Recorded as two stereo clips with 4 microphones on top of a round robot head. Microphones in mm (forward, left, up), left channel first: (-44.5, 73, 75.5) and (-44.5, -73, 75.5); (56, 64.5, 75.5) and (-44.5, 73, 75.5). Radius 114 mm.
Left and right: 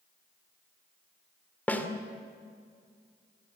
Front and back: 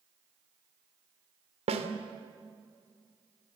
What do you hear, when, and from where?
1.7 s a snare drum: 170° left, 2.5 m